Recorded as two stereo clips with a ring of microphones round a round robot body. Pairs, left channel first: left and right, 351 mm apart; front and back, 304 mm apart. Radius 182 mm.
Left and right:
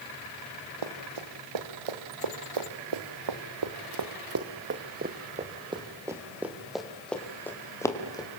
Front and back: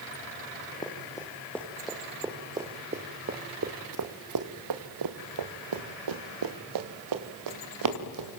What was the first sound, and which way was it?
Running footsteps, 80° right.